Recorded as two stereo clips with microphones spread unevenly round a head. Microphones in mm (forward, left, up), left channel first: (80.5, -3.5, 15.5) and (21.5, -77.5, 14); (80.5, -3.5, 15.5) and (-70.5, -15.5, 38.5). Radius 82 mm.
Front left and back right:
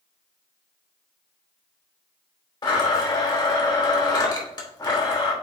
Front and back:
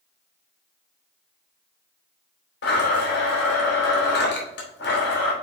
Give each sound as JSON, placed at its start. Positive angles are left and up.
{"t": 2.6, "sound": "a blender", "azimuth_deg": 10, "distance_m": 3.0}